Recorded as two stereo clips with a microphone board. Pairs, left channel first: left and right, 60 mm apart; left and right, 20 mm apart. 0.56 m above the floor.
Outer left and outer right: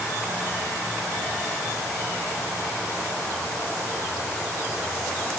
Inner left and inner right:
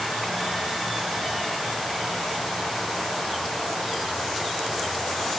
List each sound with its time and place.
Only background noise.